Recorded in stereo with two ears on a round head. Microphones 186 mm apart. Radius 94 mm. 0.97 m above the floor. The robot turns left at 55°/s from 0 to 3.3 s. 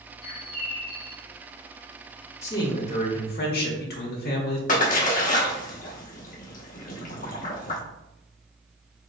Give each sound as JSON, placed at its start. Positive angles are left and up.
{"t": 0.2, "sound": "a bird", "azimuth_deg": 55, "distance_m": 1.3}
{"t": 2.4, "sound": "a man speaking", "azimuth_deg": 165, "distance_m": 1.4}
{"t": 4.7, "sound": "a splash", "side_deg": 40, "distance_m": 1.0}